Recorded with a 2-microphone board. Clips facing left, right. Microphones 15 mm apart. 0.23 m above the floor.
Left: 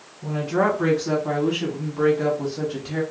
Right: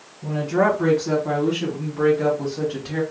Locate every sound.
0.2 s a woman speaking: 30° left (ahead or behind), 1.8 m; by 3.0 s 15° right (ahead or behind), 1.1 m